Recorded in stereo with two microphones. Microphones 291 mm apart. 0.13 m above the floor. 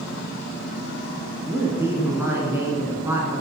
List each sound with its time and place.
1.5 s a man speaking: 10° right (ahead or behind), 1.4 m